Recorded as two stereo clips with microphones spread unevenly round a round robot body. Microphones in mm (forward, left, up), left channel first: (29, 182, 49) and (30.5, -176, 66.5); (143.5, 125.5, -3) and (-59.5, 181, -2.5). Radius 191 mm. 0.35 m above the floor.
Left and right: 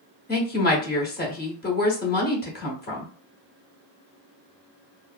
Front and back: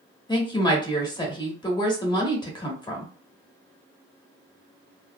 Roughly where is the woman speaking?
Ahead left.